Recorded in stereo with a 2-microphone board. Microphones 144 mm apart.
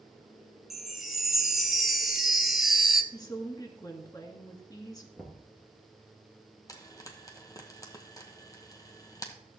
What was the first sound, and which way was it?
A chime, centre (ahead or behind).